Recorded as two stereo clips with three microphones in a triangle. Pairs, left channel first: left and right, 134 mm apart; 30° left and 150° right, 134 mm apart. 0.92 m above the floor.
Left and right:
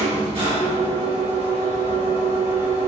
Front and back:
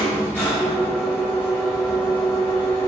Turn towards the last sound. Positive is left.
turn(degrees=-45)